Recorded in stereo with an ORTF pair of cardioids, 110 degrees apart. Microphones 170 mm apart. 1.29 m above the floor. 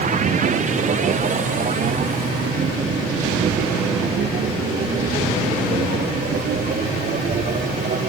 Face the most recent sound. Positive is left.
turn(degrees=-45)